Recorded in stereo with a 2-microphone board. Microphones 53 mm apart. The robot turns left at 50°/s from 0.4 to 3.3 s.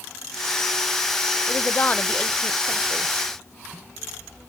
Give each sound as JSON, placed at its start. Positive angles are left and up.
{"t": 1.5, "sound": "a woman speaking", "azimuth_deg": 55, "distance_m": 0.6}